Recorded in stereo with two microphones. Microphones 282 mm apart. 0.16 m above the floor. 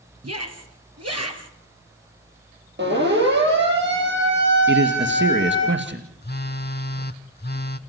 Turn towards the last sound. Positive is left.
turn(degrees=40)  # may be behind; listen again after turning